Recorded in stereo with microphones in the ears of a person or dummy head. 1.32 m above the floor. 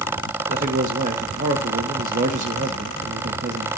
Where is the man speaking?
45° right (ahead or behind), 1.3 m.